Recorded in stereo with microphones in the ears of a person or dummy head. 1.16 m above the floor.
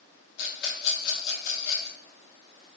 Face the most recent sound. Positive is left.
turn(degrees=60)  # may be behind; listen again after turning